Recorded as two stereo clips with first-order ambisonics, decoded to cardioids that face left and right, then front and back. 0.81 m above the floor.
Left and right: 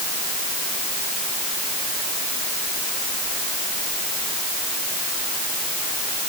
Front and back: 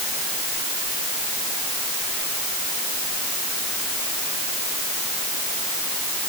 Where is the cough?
I don't hear a cough.